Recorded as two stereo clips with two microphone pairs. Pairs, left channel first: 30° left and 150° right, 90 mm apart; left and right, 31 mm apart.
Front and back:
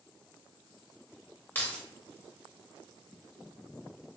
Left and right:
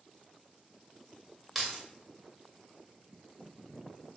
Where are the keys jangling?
5° left, 0.8 m.